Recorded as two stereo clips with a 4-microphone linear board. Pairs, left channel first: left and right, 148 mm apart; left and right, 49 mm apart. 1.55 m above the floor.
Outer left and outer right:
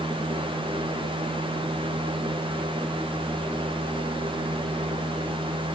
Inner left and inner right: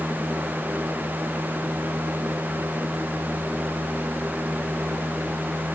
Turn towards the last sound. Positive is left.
No sound to turn to.